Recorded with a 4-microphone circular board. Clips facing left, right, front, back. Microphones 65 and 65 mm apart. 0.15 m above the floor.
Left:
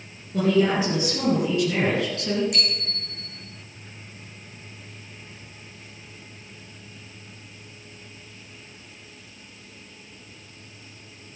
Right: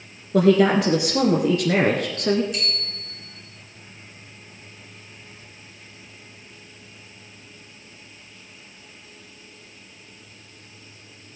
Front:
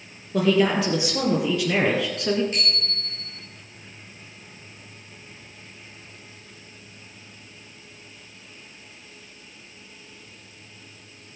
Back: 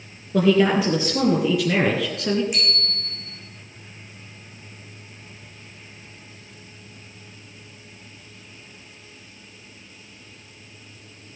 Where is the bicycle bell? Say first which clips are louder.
Left 1 dB, back 1 dB; 105° left, 7 m.